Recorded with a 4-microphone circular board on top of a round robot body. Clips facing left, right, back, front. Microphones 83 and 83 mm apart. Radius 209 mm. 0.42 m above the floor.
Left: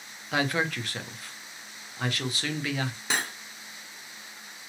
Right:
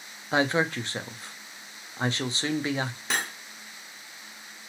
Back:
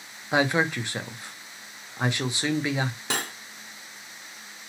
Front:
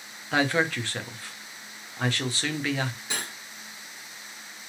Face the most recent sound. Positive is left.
turn(degrees=180)